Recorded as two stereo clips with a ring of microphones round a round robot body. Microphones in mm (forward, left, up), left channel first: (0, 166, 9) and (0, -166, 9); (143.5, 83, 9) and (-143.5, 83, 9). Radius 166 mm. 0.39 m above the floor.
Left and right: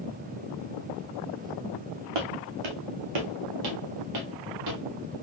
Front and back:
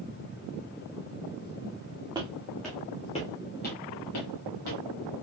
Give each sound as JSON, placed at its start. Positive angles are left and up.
{"t": 2.1, "sound": "footsteps", "azimuth_deg": -100, "distance_m": 1.4}